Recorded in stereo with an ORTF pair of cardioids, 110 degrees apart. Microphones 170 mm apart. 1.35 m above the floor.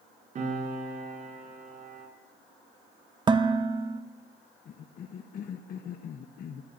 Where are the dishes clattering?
25° right, 1.2 m.